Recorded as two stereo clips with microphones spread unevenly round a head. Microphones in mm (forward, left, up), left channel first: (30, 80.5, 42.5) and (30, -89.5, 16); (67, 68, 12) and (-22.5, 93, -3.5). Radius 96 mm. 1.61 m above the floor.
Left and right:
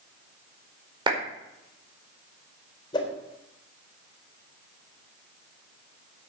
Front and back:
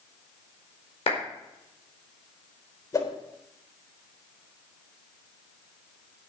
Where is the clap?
25° right, 4.5 m.